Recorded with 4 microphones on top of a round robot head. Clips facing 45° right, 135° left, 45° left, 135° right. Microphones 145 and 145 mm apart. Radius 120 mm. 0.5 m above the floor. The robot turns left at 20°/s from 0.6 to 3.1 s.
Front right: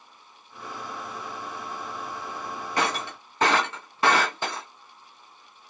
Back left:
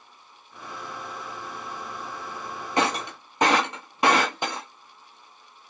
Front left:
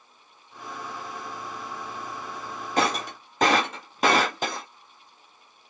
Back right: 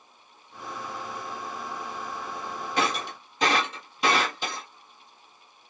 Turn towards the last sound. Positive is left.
turn(degrees=70)